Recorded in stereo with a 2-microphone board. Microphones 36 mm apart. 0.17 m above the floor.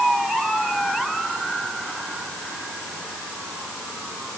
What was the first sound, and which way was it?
Only background noise.